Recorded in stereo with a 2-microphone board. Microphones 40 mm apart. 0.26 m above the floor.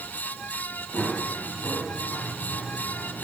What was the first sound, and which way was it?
Running footsteps, 25° left (ahead or behind).